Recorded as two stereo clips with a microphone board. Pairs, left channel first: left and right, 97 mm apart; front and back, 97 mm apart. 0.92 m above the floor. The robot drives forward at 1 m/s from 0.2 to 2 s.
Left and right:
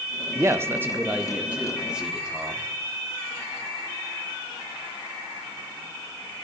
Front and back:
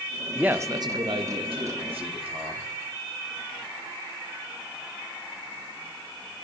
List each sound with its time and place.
0.3 s a man speaking: 100° right, 0.5 m; by 2.7 s 170° right, 1.8 m